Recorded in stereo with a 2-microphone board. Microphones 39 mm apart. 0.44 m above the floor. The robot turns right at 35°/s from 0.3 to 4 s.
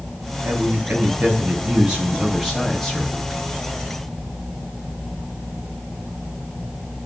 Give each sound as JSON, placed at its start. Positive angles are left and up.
{"t": 0.4, "sound": "a man speaking", "azimuth_deg": -75, "distance_m": 4.0}